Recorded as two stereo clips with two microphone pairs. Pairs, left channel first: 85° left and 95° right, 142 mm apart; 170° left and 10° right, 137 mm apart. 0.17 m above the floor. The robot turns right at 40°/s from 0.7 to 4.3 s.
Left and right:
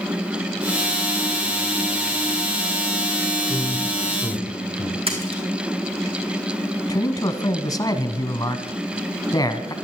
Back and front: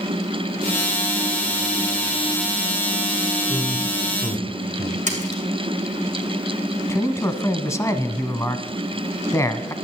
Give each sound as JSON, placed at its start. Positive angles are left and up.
{"t": 3.5, "sound": "a man speaking", "azimuth_deg": 155, "distance_m": 1.5}
{"t": 5.1, "sound": "a splash", "azimuth_deg": -45, "distance_m": 3.0}
{"t": 6.9, "sound": "a man speaking", "azimuth_deg": 115, "distance_m": 1.3}